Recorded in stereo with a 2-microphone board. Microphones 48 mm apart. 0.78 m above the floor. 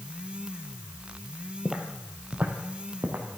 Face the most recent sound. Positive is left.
turn(degrees=-45)  # may be behind; listen again after turning